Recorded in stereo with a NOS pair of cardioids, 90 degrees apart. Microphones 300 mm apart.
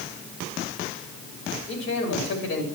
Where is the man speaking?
55° left, 3 m.